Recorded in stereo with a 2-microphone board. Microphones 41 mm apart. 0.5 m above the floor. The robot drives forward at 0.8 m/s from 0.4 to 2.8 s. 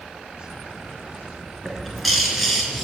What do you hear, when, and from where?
1.6 s a bird: centre (ahead or behind), 4.5 m